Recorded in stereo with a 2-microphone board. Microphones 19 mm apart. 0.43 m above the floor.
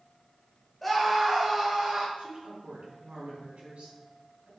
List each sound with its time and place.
0.8 s a scream: 5° left (ahead or behind), 1.9 m; by 2.1 s 25° right (ahead or behind), 3 m
2.2 s a woman speaking: 70° right (ahead or behind), 3 m